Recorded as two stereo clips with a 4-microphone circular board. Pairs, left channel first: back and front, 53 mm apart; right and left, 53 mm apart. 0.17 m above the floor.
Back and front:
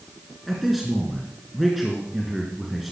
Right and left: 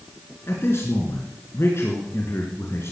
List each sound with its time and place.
0.5 s a man speaking: 90° right, 2.5 m